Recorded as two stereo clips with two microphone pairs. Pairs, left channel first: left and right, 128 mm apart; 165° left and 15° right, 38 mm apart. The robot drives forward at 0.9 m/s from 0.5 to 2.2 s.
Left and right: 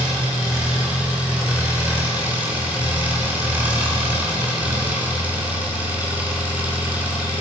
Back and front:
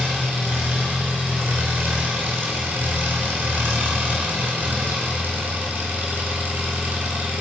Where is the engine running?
10° right, 5 m.